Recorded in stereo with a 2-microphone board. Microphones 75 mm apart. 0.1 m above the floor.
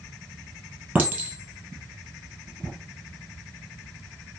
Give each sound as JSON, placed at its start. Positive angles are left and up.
{"t": 0.9, "sound": "a clink", "side_deg": -20, "distance_m": 1.4}